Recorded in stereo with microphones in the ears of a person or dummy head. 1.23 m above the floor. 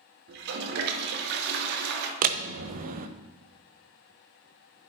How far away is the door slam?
About 0.5 m.